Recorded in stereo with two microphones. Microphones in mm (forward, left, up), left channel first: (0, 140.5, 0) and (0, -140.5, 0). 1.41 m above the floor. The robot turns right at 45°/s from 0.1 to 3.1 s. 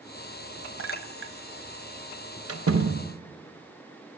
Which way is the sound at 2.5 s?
55° right (ahead or behind).